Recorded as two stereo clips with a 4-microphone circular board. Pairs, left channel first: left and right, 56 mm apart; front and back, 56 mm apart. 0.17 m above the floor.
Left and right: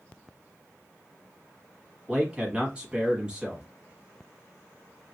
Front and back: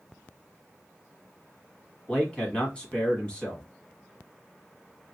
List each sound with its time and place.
2.1 s a man speaking: 45° right, 1.1 m